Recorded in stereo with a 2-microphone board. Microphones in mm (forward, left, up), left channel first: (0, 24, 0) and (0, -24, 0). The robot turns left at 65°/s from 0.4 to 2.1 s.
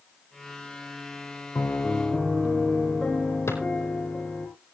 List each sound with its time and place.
1.6 s a piano: 45° left, 3.5 m; by 4.5 s 5° left, 3.5 m
3.5 s a drawer: 70° left (ahead or behind), 4.5 m